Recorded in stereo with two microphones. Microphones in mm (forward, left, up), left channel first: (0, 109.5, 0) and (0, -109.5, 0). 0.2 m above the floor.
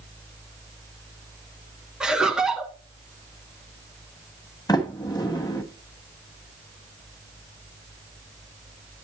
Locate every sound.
2.0 s laughter: 5° right (ahead or behind), 2.0 m
4.7 s a sliding door: 20° left (ahead or behind), 1.4 m